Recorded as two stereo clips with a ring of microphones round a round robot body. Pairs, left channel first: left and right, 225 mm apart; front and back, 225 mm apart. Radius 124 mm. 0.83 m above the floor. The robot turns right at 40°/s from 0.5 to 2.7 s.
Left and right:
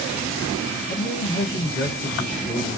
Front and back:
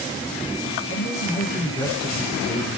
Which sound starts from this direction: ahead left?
A man speaking, at 0.9 s.